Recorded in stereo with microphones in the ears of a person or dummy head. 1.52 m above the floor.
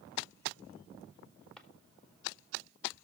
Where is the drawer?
5° left (ahead or behind), 1.7 m.